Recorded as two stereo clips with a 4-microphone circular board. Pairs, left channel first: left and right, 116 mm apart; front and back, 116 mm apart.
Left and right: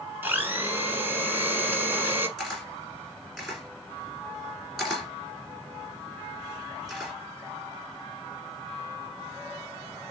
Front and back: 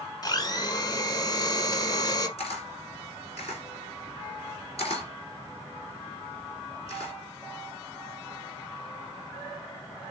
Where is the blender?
30° right, 1.0 m.